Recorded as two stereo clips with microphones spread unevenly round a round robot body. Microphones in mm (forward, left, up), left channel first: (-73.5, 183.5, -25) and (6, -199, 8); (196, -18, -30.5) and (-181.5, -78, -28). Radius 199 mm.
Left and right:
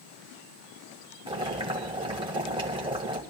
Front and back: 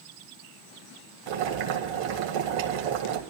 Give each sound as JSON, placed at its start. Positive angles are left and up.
{"t": 1.3, "sound": "boiling", "azimuth_deg": -155, "distance_m": 1.8}